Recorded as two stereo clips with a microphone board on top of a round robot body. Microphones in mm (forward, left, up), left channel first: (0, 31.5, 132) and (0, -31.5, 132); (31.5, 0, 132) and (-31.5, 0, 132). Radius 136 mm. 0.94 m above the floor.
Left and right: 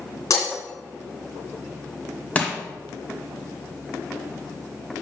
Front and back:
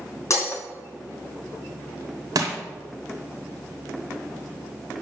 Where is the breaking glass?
50° left, 3 m.